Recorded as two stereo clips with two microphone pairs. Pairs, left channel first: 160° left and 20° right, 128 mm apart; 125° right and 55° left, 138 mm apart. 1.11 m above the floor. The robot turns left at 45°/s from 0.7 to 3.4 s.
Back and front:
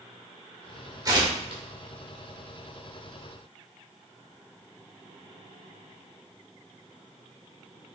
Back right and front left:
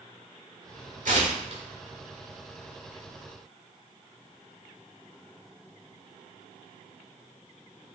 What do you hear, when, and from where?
1.1 s tearing paper: 40° left, 1.9 m; by 1.6 s 15° left, 1.9 m